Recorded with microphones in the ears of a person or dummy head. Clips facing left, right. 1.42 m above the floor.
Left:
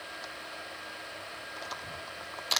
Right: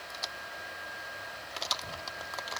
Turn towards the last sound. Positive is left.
No sound to turn to.